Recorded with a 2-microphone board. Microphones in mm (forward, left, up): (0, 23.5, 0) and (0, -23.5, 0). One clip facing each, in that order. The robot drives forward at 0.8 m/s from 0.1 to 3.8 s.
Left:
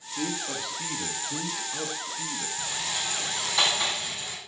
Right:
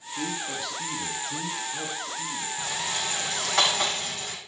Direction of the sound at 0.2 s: 10° left (ahead or behind).